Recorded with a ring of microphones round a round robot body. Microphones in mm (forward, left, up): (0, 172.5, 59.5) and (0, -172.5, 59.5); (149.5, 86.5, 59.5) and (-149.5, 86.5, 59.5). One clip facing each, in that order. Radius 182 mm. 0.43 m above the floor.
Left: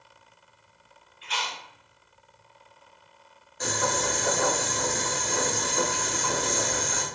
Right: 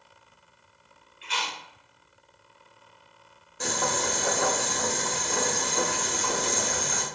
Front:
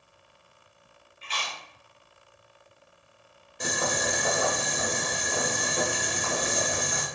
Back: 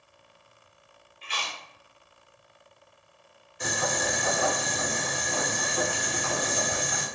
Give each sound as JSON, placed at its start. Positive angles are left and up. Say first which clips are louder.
{"t": 1.2, "sound": "chewing", "louder": "even, even", "azimuth_deg": -110, "distance_m": 1.5}
{"t": 3.6, "sound": "boiling", "louder": "left 1 dB, even", "azimuth_deg": -45, "distance_m": 1.6}